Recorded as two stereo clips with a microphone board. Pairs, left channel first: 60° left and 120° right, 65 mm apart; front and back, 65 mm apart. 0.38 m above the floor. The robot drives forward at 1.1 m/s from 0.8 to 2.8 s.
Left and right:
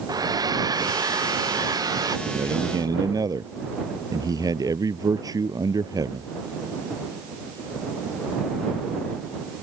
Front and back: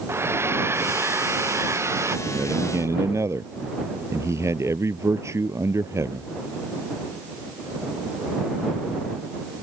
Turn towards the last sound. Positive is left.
turn(degrees=-135)